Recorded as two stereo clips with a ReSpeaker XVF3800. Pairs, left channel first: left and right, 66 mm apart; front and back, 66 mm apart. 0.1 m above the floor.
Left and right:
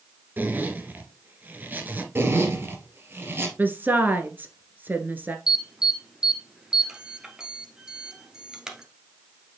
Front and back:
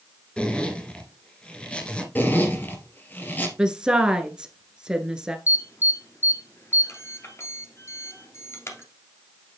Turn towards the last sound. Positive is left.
turn(degrees=-15)